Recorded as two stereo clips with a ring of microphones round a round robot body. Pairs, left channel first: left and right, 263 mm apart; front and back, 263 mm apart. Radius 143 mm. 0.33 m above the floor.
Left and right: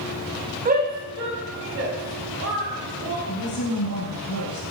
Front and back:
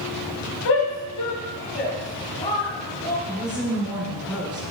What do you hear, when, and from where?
0.7 s a shout: 35° right, 2 m; by 3.2 s 80° right, 2.5 m
3.3 s a woman speaking: 95° left, 4 m